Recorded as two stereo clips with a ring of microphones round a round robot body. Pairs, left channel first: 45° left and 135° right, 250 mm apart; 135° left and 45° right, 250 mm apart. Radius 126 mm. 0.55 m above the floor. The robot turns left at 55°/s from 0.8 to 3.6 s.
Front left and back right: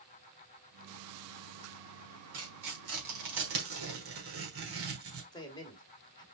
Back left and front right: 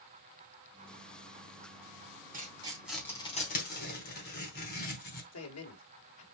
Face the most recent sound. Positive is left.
turn(degrees=120)